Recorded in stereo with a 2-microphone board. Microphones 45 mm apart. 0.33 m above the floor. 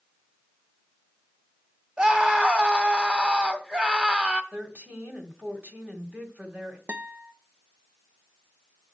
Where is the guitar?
45° right (ahead or behind), 0.6 m.